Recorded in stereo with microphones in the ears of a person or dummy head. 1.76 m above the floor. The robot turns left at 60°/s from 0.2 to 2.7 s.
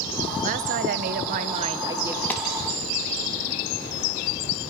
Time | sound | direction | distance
0.4 | a woman speaking | 70° right | 1.0 m
2.3 | a clap | 10° left (ahead or behind) | 2 m